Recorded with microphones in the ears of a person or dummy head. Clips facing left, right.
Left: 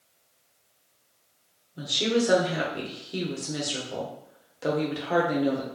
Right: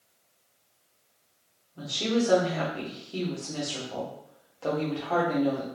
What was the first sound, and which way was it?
A woman speaking, 20° left (ahead or behind).